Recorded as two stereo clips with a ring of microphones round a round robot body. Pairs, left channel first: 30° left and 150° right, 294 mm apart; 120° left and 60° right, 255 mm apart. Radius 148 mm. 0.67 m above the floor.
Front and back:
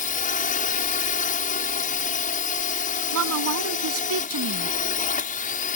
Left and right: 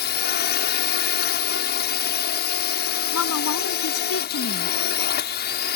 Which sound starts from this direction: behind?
A woman speaking, at 3.1 s.